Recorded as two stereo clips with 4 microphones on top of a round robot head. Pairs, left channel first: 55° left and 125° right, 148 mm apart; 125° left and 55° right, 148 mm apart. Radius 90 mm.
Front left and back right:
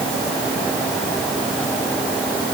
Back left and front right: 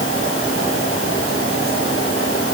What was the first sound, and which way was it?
Only background noise.